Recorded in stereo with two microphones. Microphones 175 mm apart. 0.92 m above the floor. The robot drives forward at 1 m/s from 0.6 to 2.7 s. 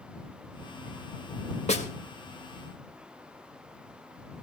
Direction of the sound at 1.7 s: 40° left (ahead or behind).